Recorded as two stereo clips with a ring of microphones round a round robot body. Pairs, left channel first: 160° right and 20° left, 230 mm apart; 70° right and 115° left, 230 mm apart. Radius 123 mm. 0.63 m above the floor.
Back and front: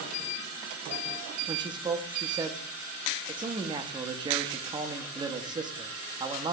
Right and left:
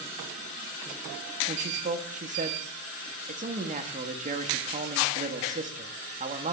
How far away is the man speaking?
About 0.7 m.